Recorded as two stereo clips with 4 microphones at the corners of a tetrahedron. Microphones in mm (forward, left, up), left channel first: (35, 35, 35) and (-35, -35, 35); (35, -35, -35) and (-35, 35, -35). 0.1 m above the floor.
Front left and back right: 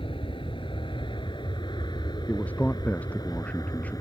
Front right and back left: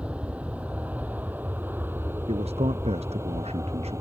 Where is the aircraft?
60° left; by 4.0 s 85° left.